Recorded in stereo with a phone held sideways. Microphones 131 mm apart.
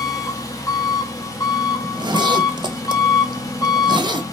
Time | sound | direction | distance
0.0 | an engine running | 25° left (ahead or behind) | 1.0 m
1.8 | a zipper | 35° right (ahead or behind) | 0.6 m